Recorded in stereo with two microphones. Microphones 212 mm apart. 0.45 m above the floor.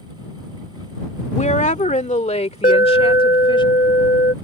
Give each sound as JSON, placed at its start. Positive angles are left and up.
{"t": 1.3, "sound": "a woman speaking", "side_deg": 35}
{"t": 2.6, "sound": "an alarm", "side_deg": 40}